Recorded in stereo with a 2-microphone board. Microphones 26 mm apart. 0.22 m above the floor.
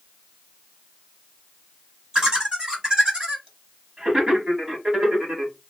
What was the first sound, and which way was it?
Laughter, 35° right (ahead or behind).